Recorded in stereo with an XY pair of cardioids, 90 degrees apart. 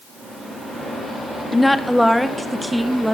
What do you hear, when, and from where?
1.5 s a woman speaking: 10° left, 0.6 m; by 3.1 s 10° right, 1.6 m